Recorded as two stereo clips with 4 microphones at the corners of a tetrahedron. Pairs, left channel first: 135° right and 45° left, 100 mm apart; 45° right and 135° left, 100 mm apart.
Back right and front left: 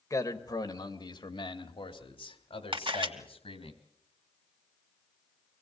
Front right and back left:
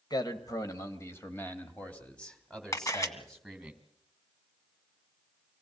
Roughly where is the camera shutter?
Ahead.